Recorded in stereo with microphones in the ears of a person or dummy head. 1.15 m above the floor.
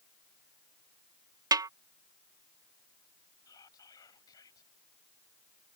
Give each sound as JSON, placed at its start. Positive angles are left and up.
{"t": 1.5, "sound": "a snare drum", "side_deg": -15}
{"t": 3.5, "sound": "whispering", "side_deg": 20}